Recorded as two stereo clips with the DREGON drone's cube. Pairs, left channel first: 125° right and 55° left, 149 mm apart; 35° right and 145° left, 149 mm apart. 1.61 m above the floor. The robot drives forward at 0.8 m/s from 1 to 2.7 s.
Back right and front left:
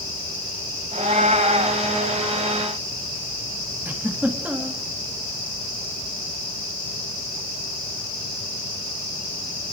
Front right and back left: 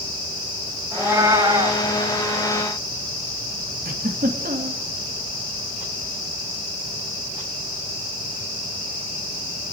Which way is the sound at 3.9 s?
135° left.